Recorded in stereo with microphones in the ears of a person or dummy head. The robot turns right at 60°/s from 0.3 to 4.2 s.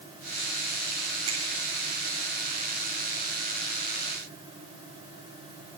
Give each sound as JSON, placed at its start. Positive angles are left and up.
{"t": 1.3, "sound": "a finger snap", "side_deg": -30, "distance_m": 1.8}